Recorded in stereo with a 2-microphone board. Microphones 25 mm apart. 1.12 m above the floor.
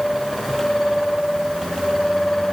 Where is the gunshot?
No gunshot in this recording.